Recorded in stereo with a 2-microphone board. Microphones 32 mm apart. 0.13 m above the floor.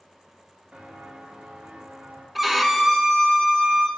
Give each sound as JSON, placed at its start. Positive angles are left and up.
{"t": 0.7, "sound": "footsteps", "side_deg": -30, "distance_m": 2.0}
{"t": 2.4, "sound": "a violin", "side_deg": -5, "distance_m": 0.8}